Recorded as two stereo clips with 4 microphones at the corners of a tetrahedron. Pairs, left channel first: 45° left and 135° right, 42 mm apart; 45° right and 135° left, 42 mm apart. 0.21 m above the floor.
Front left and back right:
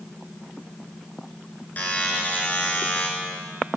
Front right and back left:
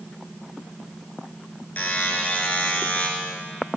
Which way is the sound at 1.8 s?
Straight ahead.